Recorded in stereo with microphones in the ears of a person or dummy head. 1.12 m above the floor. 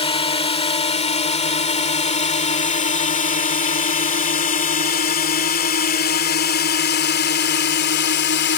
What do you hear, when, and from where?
0.0 s a drone: 25° left (ahead or behind); by 8.6 s 50° left (ahead or behind)